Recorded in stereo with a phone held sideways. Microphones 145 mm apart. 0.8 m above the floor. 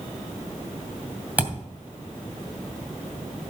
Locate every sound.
1.4 s a thud: 10° right (ahead or behind), 2.5 m